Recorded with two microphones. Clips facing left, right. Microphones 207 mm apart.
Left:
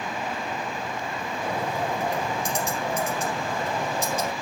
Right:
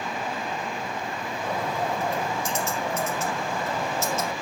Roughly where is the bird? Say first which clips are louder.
Even; centre.